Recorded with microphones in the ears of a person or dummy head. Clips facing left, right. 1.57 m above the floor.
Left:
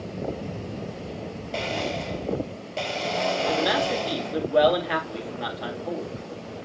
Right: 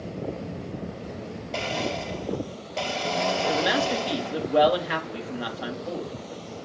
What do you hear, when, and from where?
1.5 s a blender: 5° right (ahead or behind), 3.5 m
3.5 s a man speaking: 5° right (ahead or behind), 4 m